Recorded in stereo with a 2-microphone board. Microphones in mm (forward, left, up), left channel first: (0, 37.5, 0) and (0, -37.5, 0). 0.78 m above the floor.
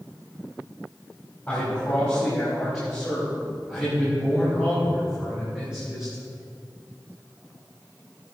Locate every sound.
1.5 s a man speaking: 15° left (ahead or behind), 5 m; by 6.2 s 15° right (ahead or behind), 6 m